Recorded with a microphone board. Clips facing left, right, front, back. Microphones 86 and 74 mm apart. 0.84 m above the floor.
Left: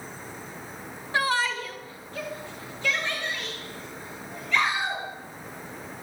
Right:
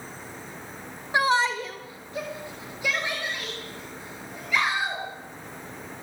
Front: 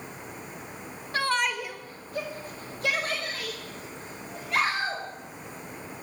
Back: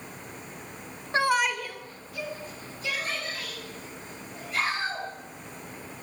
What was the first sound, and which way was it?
A shout, 145° right.